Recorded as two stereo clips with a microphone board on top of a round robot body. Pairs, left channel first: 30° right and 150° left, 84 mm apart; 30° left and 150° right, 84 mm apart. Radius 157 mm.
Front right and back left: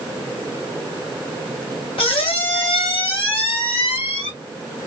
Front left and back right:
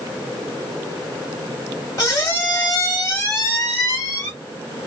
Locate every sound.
2.0 s a squeak: 25° right, 1.1 m